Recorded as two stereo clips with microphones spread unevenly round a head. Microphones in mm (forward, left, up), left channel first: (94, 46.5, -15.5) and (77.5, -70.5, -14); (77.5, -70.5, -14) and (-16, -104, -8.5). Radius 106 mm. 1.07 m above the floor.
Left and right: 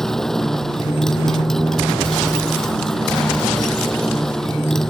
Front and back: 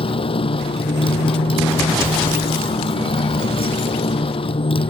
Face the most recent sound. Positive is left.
turn(degrees=-5)